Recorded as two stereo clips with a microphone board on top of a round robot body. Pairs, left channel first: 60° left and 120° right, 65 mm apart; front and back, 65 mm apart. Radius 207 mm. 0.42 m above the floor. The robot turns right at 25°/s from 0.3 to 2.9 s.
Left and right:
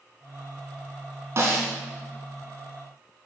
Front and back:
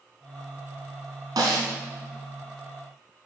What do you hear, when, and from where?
1.4 s a snare drum: 165° right, 1.8 m; by 1.7 s 160° right, 1.8 m